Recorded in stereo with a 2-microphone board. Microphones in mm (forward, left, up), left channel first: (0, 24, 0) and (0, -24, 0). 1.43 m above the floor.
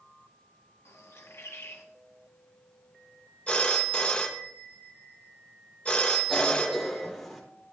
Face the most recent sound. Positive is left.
turn(degrees=5)  # may be behind; listen again after turning